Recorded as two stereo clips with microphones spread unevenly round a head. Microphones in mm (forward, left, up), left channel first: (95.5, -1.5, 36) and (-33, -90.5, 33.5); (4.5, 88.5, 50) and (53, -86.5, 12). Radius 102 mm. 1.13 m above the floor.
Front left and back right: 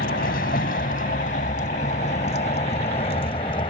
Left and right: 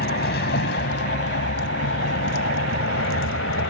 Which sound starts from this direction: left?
A vehicle, at 0.0 s.